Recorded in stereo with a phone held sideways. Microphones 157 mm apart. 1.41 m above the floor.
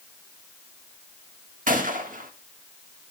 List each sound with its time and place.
1.7 s a gunshot: 60° right (ahead or behind), 1.5 m